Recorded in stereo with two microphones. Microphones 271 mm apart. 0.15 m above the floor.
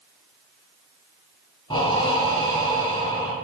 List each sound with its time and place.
1.7 s breathing: 20° left (ahead or behind), 0.6 m